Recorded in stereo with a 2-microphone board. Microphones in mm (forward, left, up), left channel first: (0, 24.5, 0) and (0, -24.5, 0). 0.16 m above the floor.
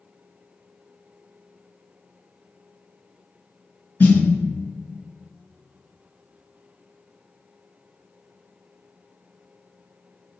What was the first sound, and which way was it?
A snare drum, 40° left (ahead or behind).